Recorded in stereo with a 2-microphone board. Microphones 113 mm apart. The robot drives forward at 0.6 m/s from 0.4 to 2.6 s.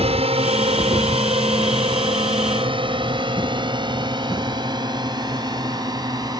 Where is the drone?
65° right (ahead or behind); by 6.4 s 35° right (ahead or behind).